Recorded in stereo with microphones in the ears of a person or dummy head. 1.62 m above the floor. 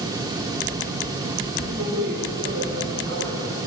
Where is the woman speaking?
75° right (ahead or behind), 7.5 m.